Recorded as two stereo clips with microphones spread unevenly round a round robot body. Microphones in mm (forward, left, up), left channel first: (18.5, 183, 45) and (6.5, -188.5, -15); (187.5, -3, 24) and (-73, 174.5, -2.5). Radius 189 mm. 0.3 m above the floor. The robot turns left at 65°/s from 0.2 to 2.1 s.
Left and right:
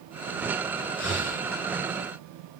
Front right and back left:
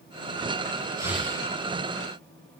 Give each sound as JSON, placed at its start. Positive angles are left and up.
{"t": 1.0, "sound": "breathing", "azimuth_deg": 70, "distance_m": 2.5}